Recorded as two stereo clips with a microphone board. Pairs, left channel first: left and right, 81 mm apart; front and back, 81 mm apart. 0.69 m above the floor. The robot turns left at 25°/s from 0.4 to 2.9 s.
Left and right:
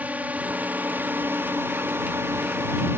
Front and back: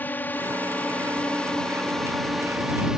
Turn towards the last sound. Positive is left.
turn(degrees=-105)